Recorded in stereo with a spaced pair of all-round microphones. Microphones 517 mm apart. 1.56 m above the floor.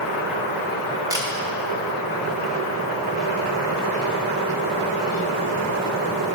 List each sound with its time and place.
1.1 s a camera shutter: 5° right (ahead or behind), 2 m